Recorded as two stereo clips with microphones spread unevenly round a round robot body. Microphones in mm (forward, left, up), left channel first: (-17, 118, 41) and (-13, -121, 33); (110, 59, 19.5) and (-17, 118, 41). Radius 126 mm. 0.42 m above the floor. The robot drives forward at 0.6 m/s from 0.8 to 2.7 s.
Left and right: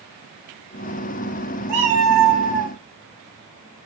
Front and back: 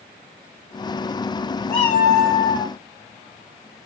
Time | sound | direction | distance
1.7 | a cat meowing | 60° right | 3.5 m